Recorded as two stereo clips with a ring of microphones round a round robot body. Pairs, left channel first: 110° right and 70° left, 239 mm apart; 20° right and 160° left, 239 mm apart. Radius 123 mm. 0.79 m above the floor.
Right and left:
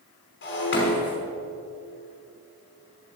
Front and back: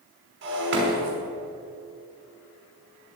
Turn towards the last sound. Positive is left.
turn(degrees=-155)